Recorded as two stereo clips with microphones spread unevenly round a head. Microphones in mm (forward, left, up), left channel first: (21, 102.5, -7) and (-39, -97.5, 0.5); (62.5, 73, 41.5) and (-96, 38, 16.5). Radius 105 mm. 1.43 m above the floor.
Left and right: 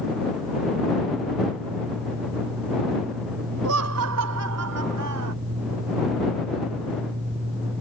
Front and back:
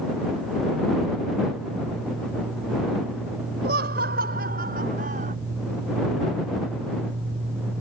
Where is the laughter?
120° right; by 5.4 s 110° right.